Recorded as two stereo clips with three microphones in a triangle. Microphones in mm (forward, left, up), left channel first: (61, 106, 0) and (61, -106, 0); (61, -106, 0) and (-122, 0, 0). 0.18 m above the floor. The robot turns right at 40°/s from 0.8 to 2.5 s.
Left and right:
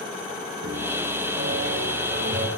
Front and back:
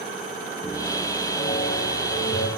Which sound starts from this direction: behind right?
A piano, at 0.6 s.